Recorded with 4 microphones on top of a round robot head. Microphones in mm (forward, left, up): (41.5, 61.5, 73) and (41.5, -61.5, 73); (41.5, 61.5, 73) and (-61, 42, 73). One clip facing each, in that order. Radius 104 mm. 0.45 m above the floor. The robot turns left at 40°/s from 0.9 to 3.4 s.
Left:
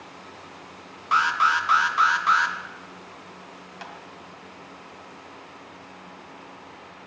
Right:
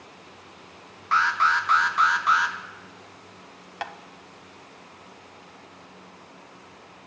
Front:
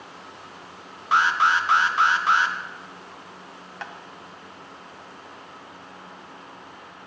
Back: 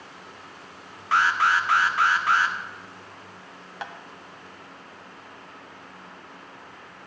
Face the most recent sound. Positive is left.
turn(degrees=-90)